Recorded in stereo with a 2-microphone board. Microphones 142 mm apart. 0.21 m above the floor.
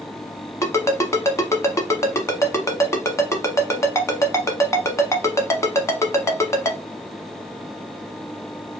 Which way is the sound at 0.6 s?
20° left (ahead or behind).